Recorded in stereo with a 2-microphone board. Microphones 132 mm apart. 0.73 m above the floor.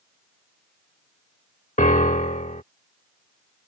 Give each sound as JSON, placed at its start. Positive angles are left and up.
{"t": 1.8, "sound": "a piano", "side_deg": 75}